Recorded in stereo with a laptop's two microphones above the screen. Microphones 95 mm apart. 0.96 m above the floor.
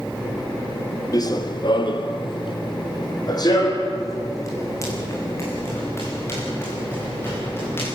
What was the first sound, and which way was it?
Running footsteps, 40° left (ahead or behind).